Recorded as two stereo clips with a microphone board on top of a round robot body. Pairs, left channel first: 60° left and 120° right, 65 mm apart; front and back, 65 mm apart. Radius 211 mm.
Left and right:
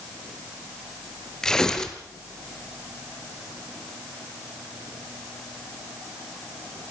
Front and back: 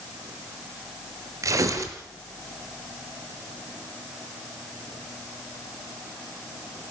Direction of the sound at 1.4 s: 140° left.